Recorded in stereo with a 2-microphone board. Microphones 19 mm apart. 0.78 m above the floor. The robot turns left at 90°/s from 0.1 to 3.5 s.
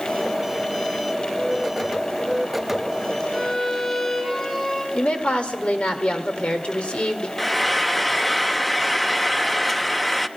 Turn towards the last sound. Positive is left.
turn(degrees=5)  # may be behind; listen again after turning